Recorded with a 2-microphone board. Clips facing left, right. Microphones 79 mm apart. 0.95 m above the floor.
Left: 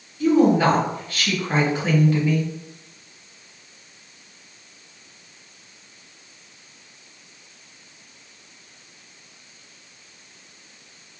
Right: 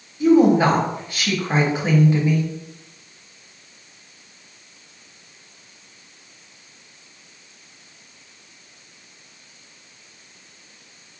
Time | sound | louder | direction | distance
0.2 | a woman speaking | right 2 dB | 15° right (ahead or behind) | 1.2 m